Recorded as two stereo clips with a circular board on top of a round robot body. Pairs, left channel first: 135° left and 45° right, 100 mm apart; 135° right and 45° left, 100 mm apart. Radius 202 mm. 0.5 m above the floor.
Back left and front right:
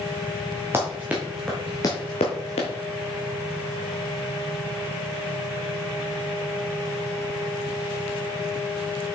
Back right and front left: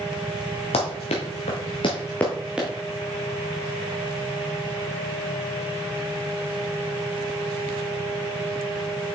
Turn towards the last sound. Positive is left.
turn(degrees=120)